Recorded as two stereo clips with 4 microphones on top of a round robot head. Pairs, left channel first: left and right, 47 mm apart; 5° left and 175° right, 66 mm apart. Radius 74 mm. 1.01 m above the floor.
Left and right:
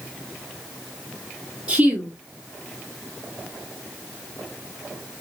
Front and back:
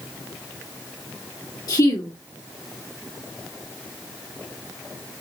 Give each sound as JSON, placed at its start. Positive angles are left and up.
{"t": 1.7, "sound": "a woman speaking", "azimuth_deg": -20, "distance_m": 1.8}